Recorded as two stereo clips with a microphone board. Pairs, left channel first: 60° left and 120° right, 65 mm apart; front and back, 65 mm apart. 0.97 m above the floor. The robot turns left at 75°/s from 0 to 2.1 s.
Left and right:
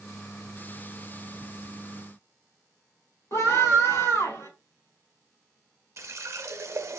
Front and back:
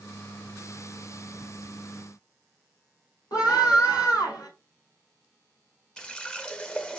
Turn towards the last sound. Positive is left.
turn(degrees=-75)